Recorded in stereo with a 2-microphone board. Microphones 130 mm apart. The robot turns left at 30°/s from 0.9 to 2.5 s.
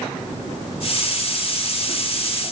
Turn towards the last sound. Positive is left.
No sound to turn to.